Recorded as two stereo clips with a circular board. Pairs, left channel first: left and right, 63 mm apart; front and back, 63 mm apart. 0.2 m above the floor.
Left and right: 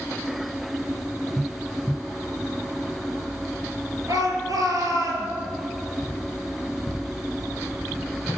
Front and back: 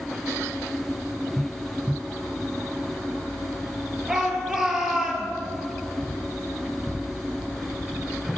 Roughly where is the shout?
Right.